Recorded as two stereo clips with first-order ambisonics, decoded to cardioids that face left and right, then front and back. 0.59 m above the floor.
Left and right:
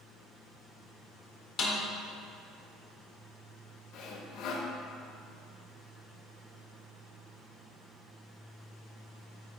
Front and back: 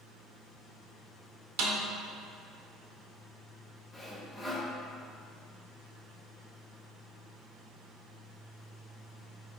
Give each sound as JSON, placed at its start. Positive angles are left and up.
{"t": 1.6, "sound": "a snare drum", "azimuth_deg": 155, "distance_m": 0.7}
{"t": 3.9, "sound": "sawing", "azimuth_deg": 75, "distance_m": 0.5}